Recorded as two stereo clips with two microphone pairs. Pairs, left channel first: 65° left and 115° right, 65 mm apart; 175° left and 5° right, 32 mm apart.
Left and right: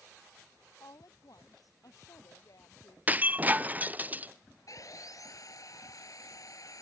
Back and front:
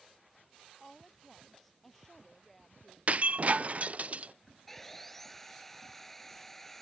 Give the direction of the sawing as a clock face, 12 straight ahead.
9 o'clock.